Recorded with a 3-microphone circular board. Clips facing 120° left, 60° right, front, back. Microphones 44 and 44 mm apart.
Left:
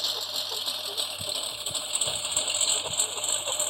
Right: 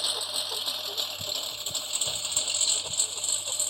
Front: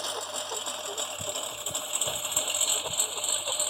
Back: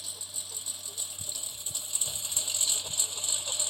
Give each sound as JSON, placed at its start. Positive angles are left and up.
{"t": 0.0, "sound": "a lawn mower", "azimuth_deg": 25}